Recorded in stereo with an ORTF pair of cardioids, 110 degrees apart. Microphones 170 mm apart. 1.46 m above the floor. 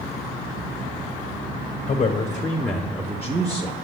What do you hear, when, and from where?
1.9 s a man speaking: 35° left, 1.0 m; by 3.7 s 30° right, 1.0 m